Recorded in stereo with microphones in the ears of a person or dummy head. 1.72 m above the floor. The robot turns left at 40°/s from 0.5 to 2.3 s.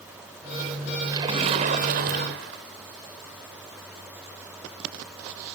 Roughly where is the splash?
Ahead right.